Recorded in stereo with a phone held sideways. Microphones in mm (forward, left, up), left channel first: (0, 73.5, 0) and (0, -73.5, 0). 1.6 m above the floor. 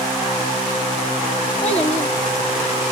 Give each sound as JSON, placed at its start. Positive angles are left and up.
{"t": 1.6, "sound": "a child speaking", "side_deg": 45, "distance_m": 1.7}